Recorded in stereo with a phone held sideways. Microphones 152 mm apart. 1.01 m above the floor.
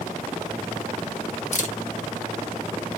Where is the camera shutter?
50° left (ahead or behind), 0.7 m.